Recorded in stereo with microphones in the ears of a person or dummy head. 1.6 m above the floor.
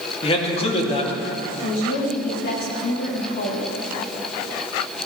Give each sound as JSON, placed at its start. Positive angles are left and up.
{"t": 0.2, "sound": "a man speaking", "side_deg": 35, "distance_m": 2.5}
{"t": 1.6, "sound": "a woman speaking", "side_deg": 55, "distance_m": 3.5}